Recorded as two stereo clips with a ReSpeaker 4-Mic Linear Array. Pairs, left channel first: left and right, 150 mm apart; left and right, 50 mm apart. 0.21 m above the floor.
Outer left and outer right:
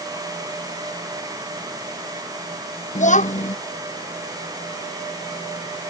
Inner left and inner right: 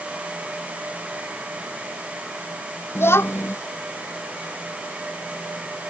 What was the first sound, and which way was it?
A child speaking, 60° left (ahead or behind).